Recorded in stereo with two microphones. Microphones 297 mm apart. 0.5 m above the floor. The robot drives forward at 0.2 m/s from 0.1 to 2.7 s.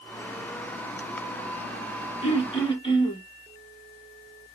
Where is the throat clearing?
20° left (ahead or behind), 0.7 m; by 3.2 s 15° left (ahead or behind), 0.8 m.